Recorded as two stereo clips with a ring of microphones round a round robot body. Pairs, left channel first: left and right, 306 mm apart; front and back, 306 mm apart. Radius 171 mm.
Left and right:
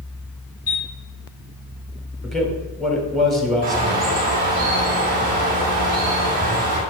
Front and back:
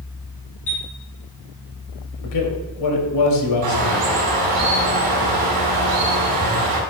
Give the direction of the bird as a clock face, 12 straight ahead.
5 o'clock.